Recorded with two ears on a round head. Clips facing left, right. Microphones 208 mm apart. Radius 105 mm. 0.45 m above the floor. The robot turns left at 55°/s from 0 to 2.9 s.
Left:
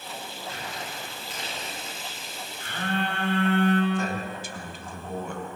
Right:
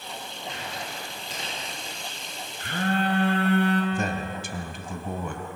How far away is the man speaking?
About 2.5 m.